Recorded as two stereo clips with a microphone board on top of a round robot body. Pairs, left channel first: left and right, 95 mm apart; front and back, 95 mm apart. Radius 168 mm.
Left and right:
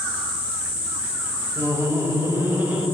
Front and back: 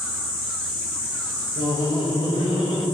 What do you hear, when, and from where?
1.6 s laughter: 30° right, 3 m; by 2.9 s 15° right, 3.5 m